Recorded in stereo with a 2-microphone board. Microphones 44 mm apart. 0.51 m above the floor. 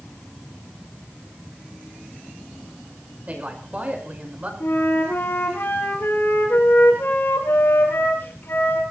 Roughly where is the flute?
Left.